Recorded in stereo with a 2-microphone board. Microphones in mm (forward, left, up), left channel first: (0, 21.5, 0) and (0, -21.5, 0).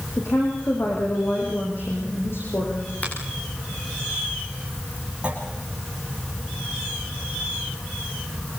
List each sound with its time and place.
0.2 s a woman speaking: 60° left (ahead or behind), 6 m
3.0 s a finger snap: 35° left (ahead or behind), 10 m
5.2 s a clunk: 25° right (ahead or behind), 5.5 m